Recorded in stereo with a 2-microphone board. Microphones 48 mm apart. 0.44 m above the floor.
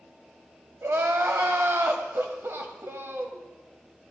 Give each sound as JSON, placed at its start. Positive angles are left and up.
{"t": 0.8, "sound": "crying", "side_deg": -65, "distance_m": 1.0}